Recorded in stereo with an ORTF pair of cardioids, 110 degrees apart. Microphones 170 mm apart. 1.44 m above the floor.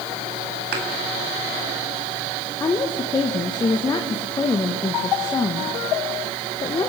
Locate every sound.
0.7 s a thud: 70° right, 5 m
2.6 s a woman speaking: 25° left, 2.0 m